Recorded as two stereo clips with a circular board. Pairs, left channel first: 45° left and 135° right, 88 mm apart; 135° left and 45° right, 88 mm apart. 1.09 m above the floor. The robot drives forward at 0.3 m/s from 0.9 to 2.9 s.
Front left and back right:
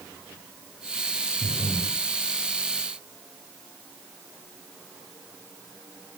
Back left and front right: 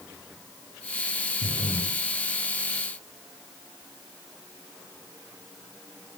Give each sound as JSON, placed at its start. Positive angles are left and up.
{"t": 1.4, "sound": "breathing", "azimuth_deg": 180, "distance_m": 1.0}